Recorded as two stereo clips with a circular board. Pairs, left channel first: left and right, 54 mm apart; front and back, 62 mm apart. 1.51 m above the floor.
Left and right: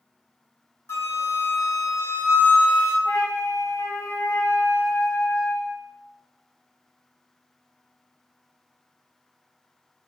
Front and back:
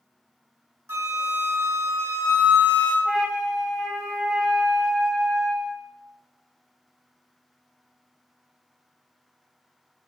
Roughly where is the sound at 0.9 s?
Behind left.